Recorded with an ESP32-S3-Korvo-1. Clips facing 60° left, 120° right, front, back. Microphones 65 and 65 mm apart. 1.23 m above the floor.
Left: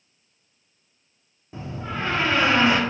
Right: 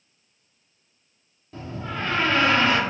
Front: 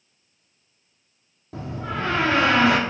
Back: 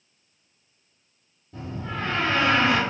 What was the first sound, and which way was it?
A door slam, 15° right.